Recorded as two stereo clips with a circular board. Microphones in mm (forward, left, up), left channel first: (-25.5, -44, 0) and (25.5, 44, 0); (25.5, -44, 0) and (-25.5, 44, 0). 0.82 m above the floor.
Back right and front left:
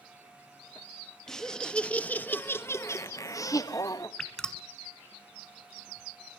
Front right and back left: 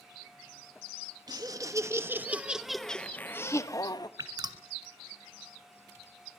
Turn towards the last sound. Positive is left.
turn(degrees=160)